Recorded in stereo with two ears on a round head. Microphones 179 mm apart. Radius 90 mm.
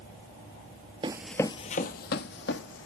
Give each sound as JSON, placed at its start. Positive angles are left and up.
{"t": 1.0, "sound": "running footsteps", "side_deg": -25, "distance_m": 0.6}